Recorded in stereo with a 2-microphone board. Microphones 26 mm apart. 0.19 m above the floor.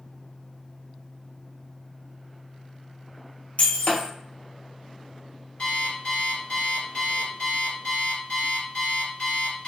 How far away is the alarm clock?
About 1.8 m.